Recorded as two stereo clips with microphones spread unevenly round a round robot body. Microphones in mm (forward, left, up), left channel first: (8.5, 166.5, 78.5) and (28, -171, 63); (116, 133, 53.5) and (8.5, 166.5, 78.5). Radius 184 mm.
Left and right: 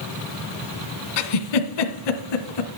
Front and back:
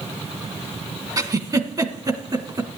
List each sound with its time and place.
1.2 s a giggle: 100° left, 1.7 m